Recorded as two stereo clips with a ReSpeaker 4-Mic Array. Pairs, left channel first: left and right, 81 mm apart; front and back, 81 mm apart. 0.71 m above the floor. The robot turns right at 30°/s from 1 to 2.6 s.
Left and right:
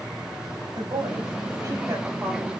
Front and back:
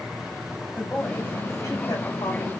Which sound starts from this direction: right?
A woman speaking, at 0.8 s.